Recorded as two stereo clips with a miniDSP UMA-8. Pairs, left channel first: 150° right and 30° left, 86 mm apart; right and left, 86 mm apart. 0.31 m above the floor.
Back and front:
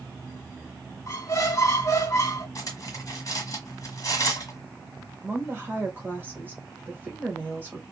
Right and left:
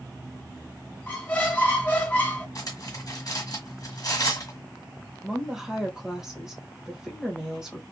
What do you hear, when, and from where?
1.1 s a squeak: 140° right, 1.0 m
2.5 s cutlery clinking: 115° right, 1.2 m
5.2 s a woman speaking: 20° left, 1.1 m